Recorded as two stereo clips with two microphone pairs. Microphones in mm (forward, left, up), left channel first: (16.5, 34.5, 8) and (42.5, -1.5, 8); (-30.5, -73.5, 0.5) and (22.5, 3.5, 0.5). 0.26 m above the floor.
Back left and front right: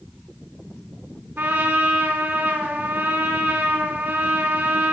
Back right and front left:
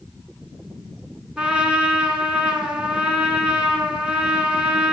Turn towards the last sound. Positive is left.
turn(degrees=-25)